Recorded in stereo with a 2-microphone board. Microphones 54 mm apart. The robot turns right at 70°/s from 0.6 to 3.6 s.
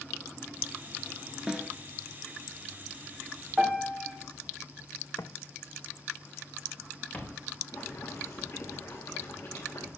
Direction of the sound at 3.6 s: Centre (ahead or behind).